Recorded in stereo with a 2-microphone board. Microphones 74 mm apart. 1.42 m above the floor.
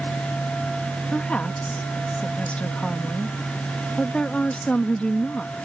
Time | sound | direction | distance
1.1 | a woman speaking | 15° left (ahead or behind) | ?